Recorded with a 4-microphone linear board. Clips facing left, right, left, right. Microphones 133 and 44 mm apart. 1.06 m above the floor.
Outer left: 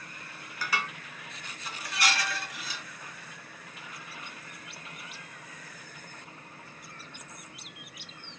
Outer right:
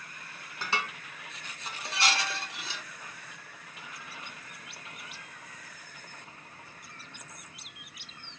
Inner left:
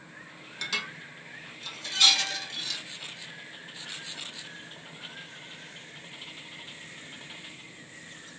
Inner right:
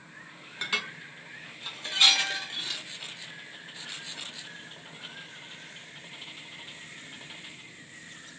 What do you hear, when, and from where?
0.6 s dishes clattering: 25° right (ahead or behind), 0.5 m